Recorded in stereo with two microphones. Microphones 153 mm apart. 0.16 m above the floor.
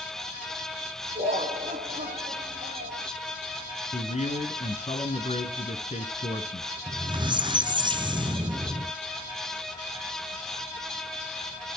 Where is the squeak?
30° right (ahead or behind), 0.7 m.